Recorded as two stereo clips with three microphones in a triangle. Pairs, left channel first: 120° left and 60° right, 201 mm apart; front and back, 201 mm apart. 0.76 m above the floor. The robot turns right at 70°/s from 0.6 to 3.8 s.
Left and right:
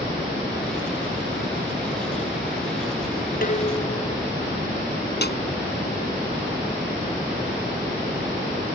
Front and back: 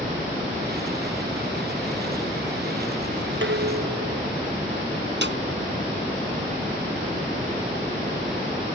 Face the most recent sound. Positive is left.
turn(degrees=155)